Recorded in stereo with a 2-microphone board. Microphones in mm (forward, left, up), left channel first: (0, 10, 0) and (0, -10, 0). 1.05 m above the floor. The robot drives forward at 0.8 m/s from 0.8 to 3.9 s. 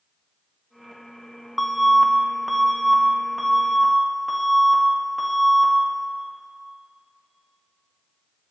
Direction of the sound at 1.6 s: Centre (ahead or behind).